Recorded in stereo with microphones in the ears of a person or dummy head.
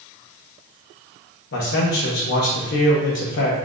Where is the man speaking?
65° left (ahead or behind), 1.1 m.